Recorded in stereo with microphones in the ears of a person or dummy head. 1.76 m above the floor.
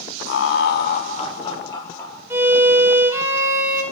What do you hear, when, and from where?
0.3 s laughter: 65° left (ahead or behind), 0.9 m; by 2.2 s 15° left (ahead or behind), 1.7 m
2.3 s a violin: 10° right (ahead or behind), 1.2 m